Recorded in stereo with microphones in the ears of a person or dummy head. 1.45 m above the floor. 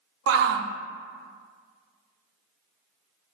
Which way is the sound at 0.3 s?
65° right (ahead or behind).